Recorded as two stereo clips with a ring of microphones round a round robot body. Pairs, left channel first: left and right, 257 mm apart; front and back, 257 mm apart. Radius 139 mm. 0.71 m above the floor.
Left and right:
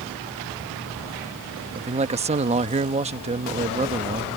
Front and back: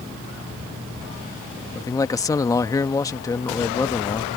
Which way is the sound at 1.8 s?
60° right.